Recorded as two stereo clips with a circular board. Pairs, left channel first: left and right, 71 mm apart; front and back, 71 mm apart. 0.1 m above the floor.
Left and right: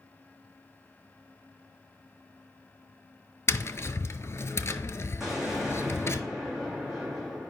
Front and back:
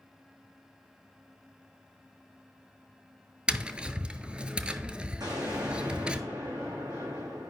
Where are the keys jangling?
I don't hear keys jangling.